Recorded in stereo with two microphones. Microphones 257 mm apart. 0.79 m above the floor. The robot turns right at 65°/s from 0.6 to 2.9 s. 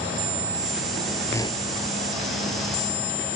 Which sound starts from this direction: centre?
A whoosh, at 1.3 s.